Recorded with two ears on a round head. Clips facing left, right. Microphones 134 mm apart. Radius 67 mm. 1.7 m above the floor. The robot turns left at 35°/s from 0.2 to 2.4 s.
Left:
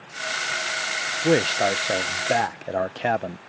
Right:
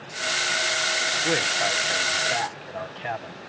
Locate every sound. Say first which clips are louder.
1.2 s a man speaking: left 8 dB; 135° left; by 3.4 s 95° left